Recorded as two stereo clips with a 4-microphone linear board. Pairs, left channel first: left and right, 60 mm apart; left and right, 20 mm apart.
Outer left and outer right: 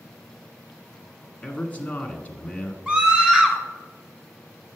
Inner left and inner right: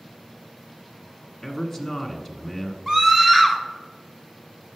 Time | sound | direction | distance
1.4 | a man speaking | 20° left (ahead or behind) | 1.3 m
2.9 | a scream | 15° right (ahead or behind) | 1.3 m